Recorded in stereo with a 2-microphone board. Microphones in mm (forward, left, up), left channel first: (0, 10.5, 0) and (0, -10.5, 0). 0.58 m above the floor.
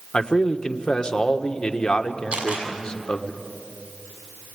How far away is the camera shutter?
About 6 m.